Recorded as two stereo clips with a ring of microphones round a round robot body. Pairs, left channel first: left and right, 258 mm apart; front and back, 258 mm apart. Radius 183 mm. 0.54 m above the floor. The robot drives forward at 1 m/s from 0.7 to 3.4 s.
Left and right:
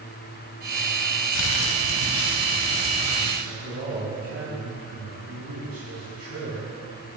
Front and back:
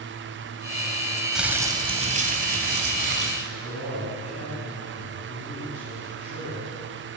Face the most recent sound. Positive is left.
turn(degrees=-75)